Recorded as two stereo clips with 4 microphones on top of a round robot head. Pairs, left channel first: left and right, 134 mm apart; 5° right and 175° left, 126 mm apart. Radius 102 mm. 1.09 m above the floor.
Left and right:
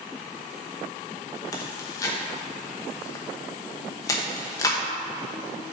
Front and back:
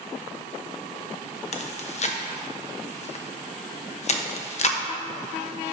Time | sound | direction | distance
1.5 | chewing | 20° left | 0.9 m